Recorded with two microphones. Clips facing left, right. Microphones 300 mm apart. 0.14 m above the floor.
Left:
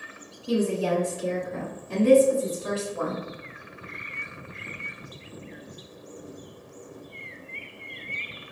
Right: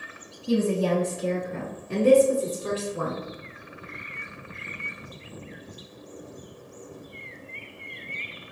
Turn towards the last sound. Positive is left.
turn(degrees=-40)  # may be behind; listen again after turning